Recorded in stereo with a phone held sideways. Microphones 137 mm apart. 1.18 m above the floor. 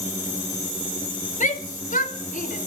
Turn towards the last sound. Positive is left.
turn(degrees=80)